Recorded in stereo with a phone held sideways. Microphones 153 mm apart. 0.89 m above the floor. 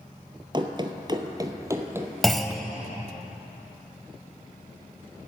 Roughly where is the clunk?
Centre.